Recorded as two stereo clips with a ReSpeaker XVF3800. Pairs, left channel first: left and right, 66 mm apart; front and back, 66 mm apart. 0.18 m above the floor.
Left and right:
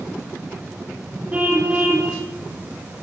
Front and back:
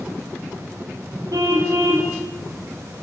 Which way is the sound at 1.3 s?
160° right.